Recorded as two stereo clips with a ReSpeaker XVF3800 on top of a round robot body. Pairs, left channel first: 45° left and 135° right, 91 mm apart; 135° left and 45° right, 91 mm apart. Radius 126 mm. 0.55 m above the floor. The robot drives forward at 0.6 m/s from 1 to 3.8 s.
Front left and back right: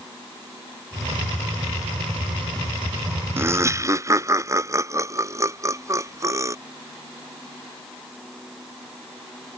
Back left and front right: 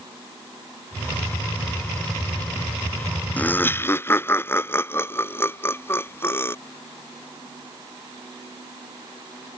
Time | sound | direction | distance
3.4 | laughter | 170° right | ?